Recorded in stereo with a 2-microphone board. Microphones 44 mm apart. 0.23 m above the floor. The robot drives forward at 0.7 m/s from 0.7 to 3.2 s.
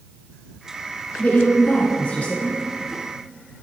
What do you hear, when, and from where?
1.2 s a woman speaking: 35° left (ahead or behind), 2.5 m; by 2.6 s 25° left (ahead or behind), 3 m